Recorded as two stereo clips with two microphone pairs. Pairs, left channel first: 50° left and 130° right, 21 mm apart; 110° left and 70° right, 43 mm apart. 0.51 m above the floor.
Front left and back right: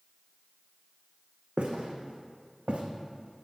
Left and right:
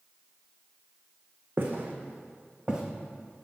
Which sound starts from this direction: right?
Footsteps, at 1.6 s.